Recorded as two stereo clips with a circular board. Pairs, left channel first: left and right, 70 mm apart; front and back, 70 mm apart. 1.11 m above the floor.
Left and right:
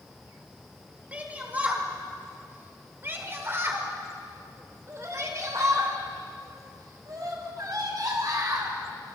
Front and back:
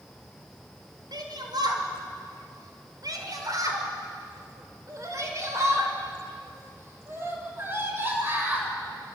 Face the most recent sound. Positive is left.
turn(degrees=-120)